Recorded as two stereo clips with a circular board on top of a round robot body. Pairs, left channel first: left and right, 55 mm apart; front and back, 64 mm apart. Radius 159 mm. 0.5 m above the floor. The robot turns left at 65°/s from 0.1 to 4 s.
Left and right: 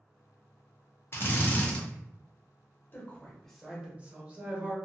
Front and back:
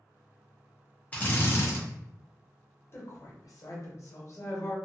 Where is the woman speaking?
40° left, 1.2 m; by 4.8 s 30° right, 1.2 m.